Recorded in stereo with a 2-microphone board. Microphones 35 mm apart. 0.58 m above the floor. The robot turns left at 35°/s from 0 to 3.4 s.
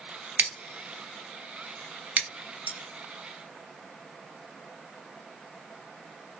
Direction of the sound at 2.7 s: 55° left (ahead or behind).